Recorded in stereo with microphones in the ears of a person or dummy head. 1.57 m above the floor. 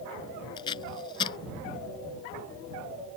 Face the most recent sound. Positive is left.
turn(degrees=25)  # may be behind; listen again after turning